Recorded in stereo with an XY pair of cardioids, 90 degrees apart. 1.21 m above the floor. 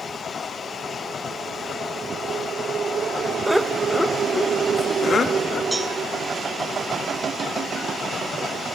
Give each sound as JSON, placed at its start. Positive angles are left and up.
{"t": 3.5, "sound": "laughter", "azimuth_deg": -5, "distance_m": 1.5}
{"t": 5.7, "sound": "a cowbell", "azimuth_deg": 0, "distance_m": 6.0}